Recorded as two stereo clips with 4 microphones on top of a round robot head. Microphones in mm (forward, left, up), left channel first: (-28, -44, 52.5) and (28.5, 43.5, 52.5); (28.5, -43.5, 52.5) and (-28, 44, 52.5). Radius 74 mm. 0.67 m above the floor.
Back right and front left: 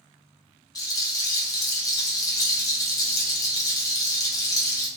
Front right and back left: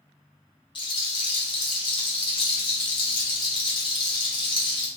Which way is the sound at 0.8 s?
80° right.